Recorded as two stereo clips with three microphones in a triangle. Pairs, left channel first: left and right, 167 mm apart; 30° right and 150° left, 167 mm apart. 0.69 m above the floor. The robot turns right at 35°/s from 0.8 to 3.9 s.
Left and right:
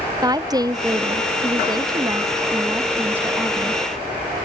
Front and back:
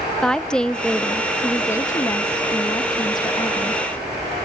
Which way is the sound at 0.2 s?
110° right.